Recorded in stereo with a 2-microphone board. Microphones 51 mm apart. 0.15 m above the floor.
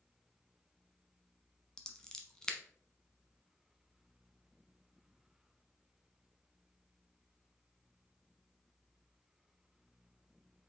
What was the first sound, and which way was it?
Scissors, 15° left (ahead or behind).